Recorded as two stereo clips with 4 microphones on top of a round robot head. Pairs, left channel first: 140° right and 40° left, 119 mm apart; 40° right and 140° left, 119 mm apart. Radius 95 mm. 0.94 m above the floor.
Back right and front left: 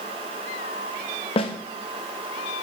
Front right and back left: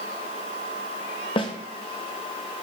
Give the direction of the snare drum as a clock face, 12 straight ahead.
3 o'clock.